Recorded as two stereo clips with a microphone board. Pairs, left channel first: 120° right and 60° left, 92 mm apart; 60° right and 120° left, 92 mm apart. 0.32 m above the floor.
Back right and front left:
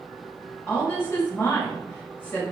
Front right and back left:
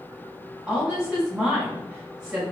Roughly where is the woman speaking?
Behind.